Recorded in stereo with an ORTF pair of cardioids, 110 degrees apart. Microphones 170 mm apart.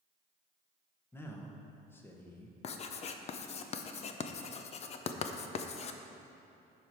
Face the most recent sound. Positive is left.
turn(degrees=40)